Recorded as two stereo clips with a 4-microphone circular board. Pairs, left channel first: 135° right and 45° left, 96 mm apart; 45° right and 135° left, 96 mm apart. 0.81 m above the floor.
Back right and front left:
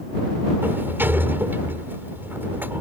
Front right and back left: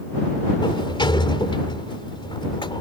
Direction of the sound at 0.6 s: 20° right.